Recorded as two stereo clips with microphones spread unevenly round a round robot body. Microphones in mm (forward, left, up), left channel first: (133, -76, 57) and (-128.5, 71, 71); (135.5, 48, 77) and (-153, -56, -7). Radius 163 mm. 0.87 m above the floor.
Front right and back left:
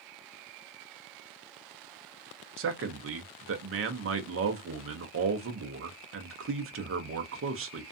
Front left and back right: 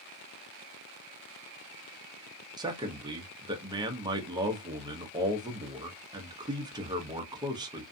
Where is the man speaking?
155° left, 0.6 m.